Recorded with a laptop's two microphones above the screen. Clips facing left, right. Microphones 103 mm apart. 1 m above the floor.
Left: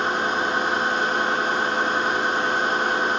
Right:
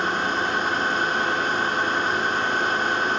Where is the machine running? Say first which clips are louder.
Left 1 dB; 15° left (ahead or behind), 1.5 m.